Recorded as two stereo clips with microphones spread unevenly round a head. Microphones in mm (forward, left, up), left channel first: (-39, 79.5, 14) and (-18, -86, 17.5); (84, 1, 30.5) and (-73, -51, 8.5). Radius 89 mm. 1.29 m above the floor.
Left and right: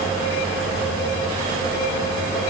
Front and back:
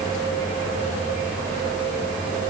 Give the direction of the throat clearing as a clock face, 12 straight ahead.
No throat clearing in this recording.